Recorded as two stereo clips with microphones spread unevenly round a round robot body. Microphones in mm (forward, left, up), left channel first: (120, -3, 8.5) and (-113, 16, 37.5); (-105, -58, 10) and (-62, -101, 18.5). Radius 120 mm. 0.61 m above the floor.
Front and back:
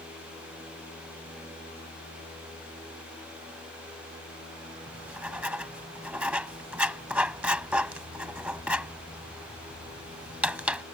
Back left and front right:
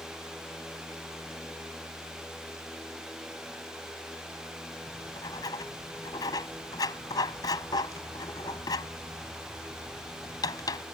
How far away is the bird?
I don't hear a bird.